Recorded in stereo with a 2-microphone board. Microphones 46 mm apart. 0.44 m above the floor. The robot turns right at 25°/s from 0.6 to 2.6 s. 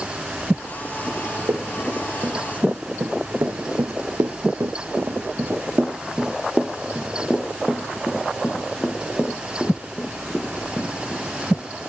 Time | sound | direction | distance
1.1 | running footsteps | 80° right | 4 m